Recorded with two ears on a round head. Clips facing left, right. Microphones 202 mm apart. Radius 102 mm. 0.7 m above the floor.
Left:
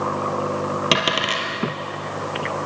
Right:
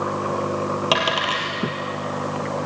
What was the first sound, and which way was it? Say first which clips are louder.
A dropped coin: even; 30° left (ahead or behind).